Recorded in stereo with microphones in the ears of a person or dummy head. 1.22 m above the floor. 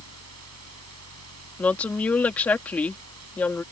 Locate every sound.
0.0 s a fan: 90° right
1.6 s a woman speaking: 10° left (ahead or behind)